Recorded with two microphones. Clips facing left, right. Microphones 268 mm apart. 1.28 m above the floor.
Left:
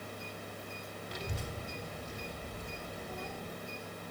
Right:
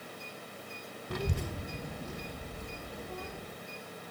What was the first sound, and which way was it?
A child speaking, 60° right (ahead or behind).